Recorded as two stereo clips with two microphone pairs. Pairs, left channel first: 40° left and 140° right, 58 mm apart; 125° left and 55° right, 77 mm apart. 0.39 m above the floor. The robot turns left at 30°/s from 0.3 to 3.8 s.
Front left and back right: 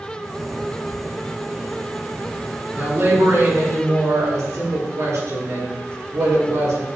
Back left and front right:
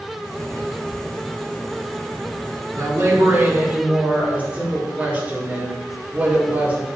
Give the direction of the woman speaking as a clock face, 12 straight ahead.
3 o'clock.